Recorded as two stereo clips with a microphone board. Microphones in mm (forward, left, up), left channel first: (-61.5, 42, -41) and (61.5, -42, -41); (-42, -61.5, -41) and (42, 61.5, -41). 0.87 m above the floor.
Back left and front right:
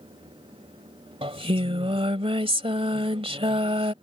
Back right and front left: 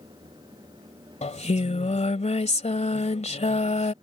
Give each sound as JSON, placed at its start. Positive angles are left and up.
{"t": 1.2, "sound": "singing", "azimuth_deg": -85}